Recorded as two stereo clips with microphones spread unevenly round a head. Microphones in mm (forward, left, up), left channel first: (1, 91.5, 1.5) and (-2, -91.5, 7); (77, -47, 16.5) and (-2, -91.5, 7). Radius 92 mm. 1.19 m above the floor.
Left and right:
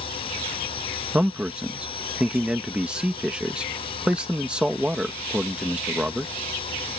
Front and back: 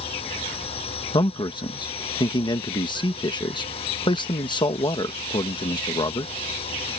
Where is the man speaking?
5° right.